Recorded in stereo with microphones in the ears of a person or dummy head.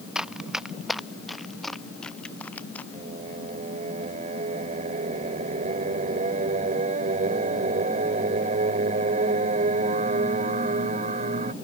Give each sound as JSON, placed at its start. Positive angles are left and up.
{"t": 0.1, "sound": "running footsteps", "side_deg": -5}
{"t": 2.9, "sound": "singing", "side_deg": -45}